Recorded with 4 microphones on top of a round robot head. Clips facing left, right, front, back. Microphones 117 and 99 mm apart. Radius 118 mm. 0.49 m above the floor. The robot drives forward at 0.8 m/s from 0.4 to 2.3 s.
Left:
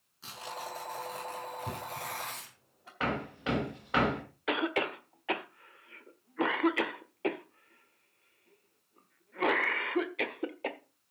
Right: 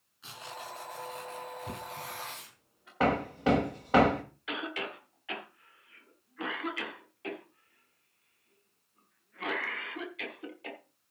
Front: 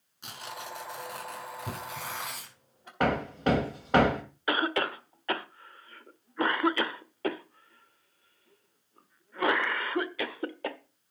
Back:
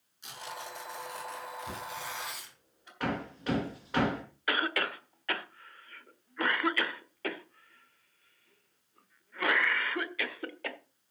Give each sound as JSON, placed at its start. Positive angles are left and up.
{"t": 0.2, "sound": "tearing paper", "azimuth_deg": 30, "distance_m": 5.0}
{"t": 1.7, "sound": "knocking", "azimuth_deg": 30, "distance_m": 4.0}
{"t": 3.0, "sound": "hammering", "azimuth_deg": -40, "distance_m": 1.8}
{"t": 4.5, "sound": "a cough", "azimuth_deg": 60, "distance_m": 1.5}